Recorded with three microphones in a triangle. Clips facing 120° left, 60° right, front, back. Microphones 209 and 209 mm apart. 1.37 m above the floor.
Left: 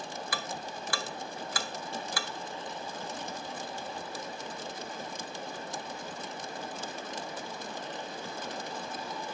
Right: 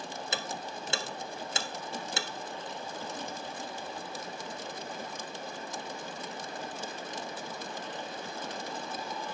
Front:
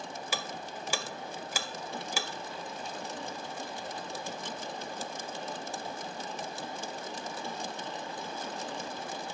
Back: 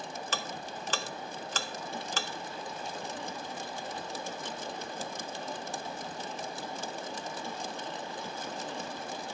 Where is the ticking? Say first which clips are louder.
Right 1 dB, front 1 dB; 60° right, 0.5 m.